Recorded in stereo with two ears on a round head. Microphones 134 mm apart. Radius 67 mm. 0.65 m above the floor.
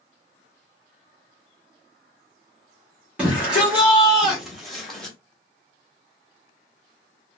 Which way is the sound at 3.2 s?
10° right (ahead or behind).